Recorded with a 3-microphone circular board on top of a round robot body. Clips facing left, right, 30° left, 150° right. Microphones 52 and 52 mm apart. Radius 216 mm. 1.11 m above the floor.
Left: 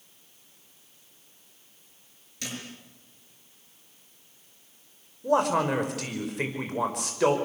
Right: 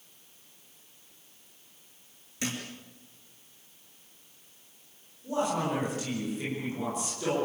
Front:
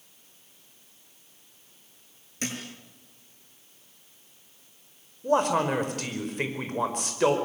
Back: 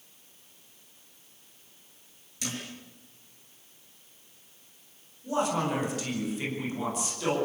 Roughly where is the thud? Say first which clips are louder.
Right 3 dB, front 3 dB; ahead.